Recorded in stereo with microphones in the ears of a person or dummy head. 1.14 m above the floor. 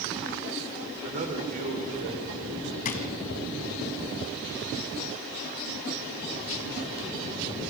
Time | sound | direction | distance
1.0 | a man speaking | 35° right (ahead or behind) | 3 m
2.9 | a drawer | 45° left (ahead or behind) | 2.5 m